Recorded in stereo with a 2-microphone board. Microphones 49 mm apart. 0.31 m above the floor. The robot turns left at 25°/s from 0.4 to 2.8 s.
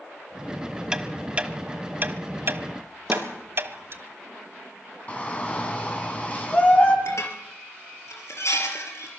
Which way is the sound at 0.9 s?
15° right (ahead or behind).